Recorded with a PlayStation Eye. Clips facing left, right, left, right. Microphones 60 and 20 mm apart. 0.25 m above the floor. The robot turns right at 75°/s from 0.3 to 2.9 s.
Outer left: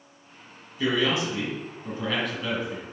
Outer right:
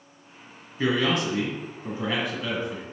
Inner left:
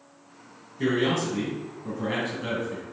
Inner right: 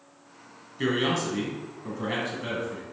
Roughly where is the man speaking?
Behind right.